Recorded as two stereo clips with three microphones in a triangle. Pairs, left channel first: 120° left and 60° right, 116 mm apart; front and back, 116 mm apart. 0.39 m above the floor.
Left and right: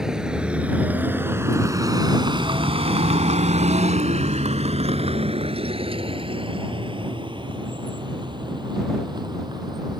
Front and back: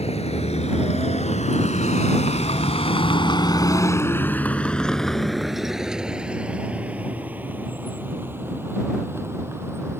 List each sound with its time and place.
0.0 s a vehicle: 25° left; by 10.0 s 110° right